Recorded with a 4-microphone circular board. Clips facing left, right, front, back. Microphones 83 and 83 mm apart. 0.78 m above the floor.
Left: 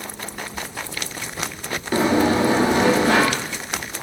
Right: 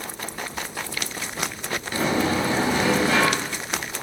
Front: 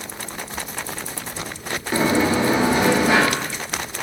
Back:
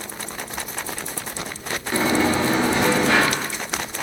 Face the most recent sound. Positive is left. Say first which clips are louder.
# left 6 dB, front 1 dB
turn(degrees=70)